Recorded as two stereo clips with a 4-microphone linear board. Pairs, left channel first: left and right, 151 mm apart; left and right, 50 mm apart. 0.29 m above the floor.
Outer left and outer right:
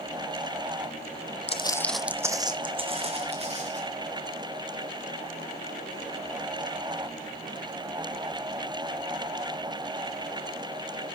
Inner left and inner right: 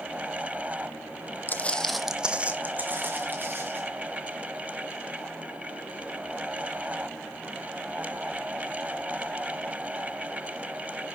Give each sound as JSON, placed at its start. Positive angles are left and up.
{"t": 1.5, "sound": "footsteps", "side_deg": 45, "distance_m": 0.7}